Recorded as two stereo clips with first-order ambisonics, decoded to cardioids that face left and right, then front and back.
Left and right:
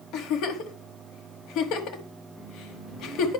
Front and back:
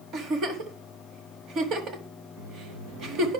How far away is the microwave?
About 4.5 m.